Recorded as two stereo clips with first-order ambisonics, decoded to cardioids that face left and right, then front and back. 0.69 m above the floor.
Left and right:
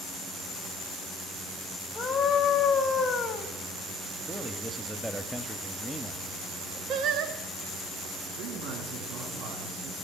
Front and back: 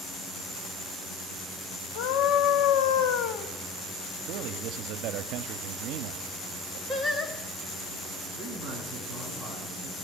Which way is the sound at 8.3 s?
80° right.